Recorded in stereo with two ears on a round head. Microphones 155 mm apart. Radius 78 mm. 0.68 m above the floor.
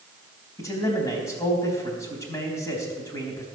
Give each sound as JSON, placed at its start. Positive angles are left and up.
{"t": 0.6, "sound": "a man speaking", "side_deg": 20, "distance_m": 4.0}